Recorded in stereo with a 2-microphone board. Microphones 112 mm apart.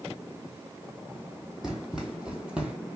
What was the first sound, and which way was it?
Running footsteps, 5° right (ahead or behind).